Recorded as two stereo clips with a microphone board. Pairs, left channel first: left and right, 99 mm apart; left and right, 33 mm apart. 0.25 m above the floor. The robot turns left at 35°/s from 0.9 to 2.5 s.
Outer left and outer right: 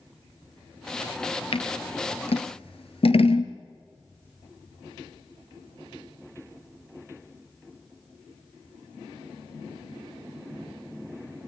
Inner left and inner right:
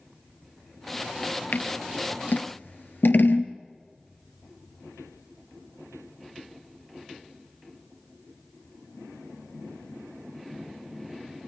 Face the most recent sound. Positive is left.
turn(degrees=75)  # may be behind; listen again after turning